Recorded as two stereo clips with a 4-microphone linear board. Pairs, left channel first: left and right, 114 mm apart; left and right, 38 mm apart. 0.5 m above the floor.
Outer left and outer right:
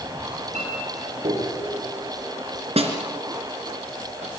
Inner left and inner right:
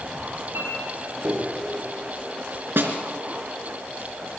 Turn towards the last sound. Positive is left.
turn(degrees=-60)  # may be behind; listen again after turning